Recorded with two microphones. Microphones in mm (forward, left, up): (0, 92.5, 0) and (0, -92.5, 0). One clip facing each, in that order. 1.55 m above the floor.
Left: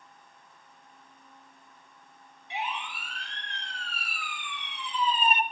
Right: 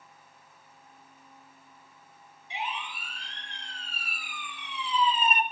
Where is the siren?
65° left (ahead or behind), 4 m; by 5.4 s 25° left (ahead or behind), 1.2 m.